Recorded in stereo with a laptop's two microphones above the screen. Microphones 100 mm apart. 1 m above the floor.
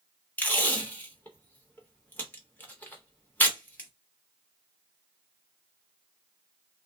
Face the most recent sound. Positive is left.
turn(degrees=20)  # may be behind; listen again after turning